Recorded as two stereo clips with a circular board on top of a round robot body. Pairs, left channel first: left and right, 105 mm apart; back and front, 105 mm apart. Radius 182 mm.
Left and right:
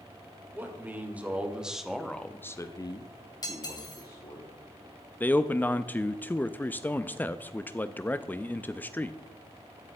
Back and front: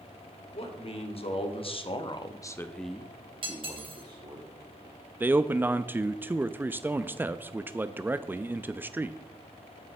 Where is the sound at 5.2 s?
45° left, 0.7 m.